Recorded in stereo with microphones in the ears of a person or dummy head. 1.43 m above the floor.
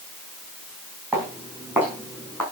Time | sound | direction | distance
1.1 | footsteps | 10° right (ahead or behind) | 5 m